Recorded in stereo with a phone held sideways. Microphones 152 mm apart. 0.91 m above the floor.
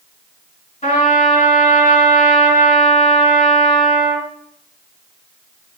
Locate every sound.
0.8 s a trumpet: 45° left (ahead or behind), 4.5 m